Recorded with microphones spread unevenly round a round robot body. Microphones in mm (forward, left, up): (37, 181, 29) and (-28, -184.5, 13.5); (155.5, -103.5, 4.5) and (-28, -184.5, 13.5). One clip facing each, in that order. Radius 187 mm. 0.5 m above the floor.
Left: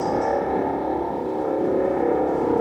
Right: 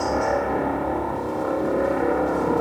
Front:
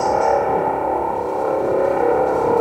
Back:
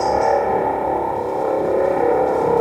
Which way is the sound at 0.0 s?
70° right.